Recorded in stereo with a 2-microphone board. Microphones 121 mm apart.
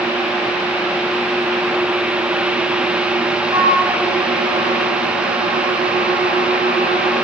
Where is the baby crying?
I don't hear a baby crying.